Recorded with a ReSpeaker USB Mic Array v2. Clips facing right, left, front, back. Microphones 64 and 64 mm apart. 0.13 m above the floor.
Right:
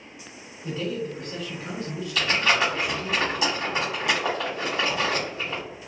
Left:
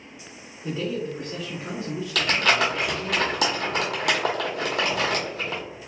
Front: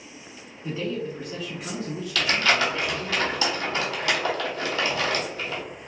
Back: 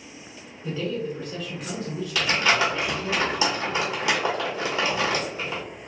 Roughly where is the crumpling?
Left.